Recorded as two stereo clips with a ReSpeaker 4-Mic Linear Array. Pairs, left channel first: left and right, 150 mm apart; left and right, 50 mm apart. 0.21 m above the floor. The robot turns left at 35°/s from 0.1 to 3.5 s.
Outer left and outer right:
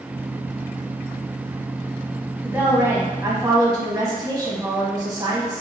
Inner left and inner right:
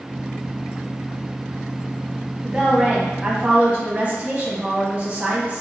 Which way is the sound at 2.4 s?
10° right (ahead or behind).